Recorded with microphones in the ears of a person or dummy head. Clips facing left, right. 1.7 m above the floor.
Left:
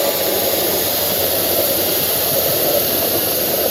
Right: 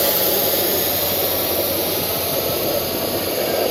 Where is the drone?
10° right (ahead or behind); by 3.7 s 20° left (ahead or behind).